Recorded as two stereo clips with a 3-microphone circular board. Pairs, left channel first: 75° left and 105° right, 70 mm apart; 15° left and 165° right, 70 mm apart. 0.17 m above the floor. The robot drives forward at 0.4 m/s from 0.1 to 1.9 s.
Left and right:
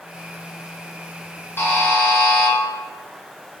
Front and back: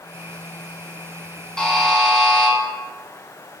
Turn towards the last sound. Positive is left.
turn(degrees=100)